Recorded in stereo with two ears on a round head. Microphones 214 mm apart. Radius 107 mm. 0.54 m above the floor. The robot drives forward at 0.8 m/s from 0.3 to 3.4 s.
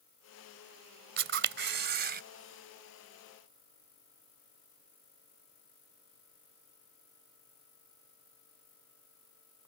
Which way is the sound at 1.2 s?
55° right (ahead or behind).